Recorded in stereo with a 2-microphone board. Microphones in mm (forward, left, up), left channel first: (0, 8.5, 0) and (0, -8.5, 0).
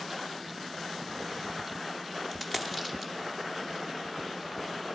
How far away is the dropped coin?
About 0.9 m.